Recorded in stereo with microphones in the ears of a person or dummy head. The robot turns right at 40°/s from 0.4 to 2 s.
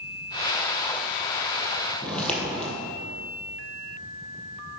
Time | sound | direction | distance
2.0 | footsteps | 5° left (ahead or behind) | 2.5 m